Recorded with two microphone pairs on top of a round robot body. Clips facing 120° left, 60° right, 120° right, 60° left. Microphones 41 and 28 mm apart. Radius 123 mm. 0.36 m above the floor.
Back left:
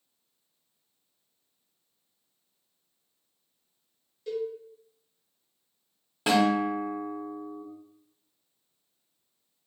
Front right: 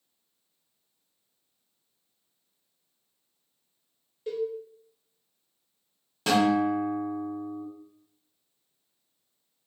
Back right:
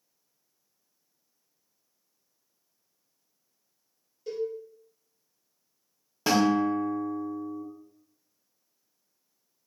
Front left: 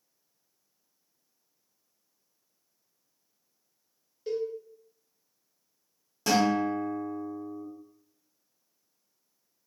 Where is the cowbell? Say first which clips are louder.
Front right 1 dB, front left 1 dB; 10° left, 1.7 m.